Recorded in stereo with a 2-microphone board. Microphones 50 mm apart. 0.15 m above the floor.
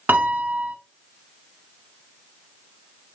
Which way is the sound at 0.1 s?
45° right (ahead or behind).